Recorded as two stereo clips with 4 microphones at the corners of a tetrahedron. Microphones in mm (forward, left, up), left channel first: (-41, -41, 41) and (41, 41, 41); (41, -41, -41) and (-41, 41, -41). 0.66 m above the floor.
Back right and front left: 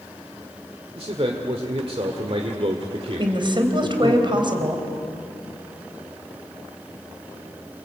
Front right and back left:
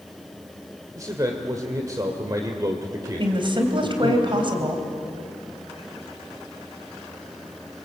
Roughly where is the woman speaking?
Left.